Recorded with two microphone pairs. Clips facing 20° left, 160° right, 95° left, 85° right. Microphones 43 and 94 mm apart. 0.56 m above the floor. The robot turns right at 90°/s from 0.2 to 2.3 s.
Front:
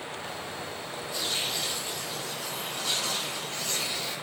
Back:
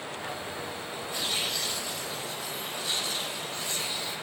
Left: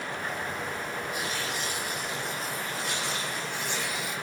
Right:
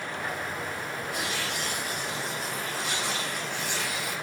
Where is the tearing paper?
105° right, 9 m; by 4.1 s 5° left, 9 m.